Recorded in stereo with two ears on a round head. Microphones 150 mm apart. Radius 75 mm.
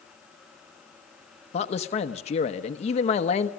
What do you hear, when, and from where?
1.5 s a man speaking: 40° left (ahead or behind), 1.0 m